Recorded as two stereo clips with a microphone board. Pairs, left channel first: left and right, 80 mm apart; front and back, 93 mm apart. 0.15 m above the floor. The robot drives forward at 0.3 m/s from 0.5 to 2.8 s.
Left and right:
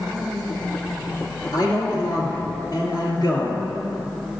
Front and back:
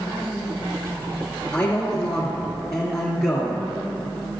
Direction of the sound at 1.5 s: 75° left.